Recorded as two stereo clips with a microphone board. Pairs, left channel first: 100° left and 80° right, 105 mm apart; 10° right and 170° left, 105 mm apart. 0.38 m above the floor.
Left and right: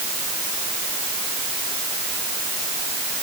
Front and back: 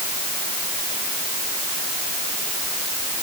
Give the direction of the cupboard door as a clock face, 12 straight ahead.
No cupboard door in this recording.